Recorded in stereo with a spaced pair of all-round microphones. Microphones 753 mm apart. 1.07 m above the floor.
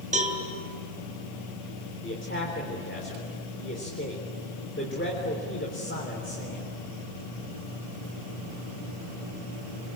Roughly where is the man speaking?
Centre.